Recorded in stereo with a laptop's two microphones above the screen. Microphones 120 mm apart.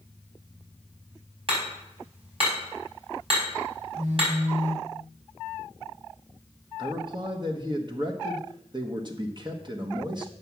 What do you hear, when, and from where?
1.5 s hammering: 50° right (ahead or behind), 5.5 m
4.0 s a phone buzzing: 85° right, 1.9 m
6.8 s a man speaking: 40° right (ahead or behind), 1.2 m